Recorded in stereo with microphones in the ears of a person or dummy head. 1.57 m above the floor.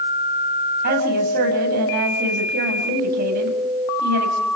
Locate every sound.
0.8 s a woman speaking: 50° right (ahead or behind), 8.5 m